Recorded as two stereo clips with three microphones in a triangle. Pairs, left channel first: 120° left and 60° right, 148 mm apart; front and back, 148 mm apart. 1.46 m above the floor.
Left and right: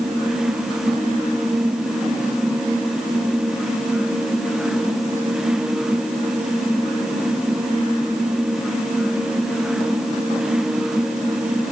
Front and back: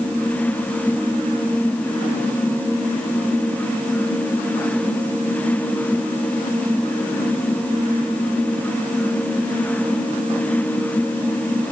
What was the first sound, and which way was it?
Only background noise.